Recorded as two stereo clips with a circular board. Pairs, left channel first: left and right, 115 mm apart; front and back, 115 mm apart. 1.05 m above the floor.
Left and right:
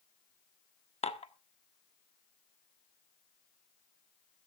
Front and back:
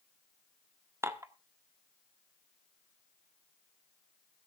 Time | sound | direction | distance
1.0 | dishes clattering | 115° left | 1.4 m